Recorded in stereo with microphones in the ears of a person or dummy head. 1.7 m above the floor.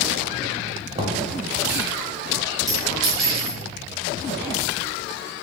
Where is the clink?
5° left (ahead or behind), 1.3 m.